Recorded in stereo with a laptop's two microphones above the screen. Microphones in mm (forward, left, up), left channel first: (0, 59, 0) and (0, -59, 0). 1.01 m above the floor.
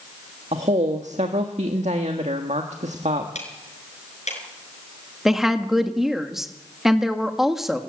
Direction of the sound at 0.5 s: 75° right (ahead or behind).